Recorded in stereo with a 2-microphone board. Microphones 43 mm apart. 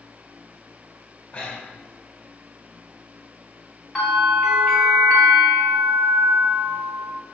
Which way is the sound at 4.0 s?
20° left (ahead or behind).